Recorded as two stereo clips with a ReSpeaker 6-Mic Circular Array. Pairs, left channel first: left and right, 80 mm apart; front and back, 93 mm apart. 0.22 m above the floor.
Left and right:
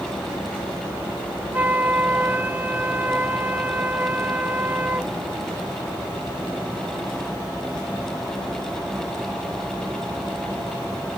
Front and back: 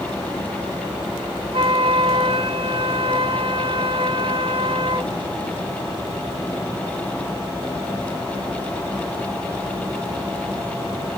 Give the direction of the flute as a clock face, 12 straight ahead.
5 o'clock.